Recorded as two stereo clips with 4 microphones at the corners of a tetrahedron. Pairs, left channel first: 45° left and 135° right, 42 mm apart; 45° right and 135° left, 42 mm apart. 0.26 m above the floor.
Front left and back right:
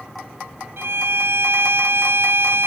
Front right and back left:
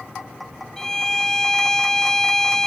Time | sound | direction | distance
0.8 | a violin | 125° right | ?